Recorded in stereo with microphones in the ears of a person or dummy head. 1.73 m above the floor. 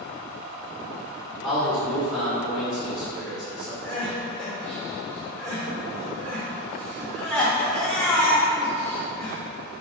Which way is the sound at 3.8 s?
5° left (ahead or behind).